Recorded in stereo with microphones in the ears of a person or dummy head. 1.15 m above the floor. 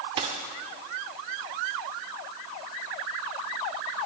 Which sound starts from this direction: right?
A dropped coin, at 0.2 s.